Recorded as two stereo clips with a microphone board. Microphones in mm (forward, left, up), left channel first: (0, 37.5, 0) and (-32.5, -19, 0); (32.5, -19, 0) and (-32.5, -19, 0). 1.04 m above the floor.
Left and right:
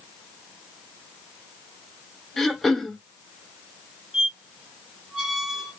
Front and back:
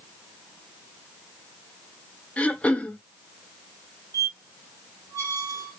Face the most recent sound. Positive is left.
turn(degrees=160)